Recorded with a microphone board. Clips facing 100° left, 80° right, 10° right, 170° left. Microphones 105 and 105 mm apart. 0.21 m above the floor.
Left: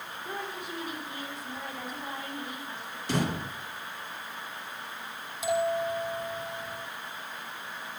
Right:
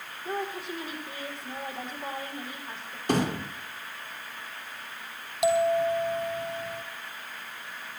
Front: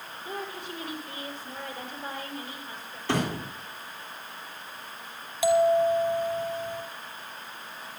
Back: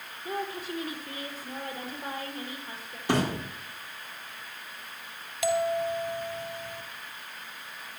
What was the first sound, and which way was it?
A woman speaking, 140° right.